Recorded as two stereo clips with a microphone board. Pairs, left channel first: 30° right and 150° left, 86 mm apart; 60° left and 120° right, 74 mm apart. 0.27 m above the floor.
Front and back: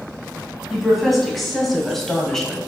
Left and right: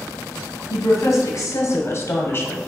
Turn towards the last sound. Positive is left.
turn(degrees=50)